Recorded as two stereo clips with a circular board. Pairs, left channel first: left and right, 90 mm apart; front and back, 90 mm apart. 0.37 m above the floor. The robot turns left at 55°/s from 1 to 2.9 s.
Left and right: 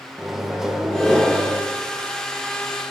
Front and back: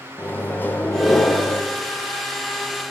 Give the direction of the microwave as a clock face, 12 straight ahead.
12 o'clock.